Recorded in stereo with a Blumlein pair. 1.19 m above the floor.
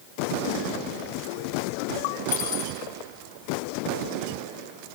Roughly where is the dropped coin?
Ahead left.